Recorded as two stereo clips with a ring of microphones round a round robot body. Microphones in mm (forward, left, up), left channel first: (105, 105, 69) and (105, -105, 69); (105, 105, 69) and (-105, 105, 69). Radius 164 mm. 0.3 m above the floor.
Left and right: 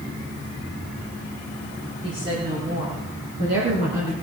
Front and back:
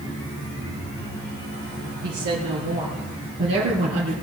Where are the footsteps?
I don't hear footsteps.